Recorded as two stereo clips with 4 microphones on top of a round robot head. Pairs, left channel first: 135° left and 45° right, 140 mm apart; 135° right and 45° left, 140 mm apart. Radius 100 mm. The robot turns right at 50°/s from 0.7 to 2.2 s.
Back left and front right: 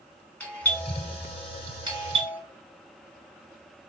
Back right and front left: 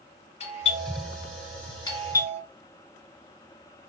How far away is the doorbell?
About 1.3 m.